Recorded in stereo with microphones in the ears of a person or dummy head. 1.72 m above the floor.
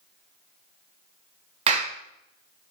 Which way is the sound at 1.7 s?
35° right (ahead or behind).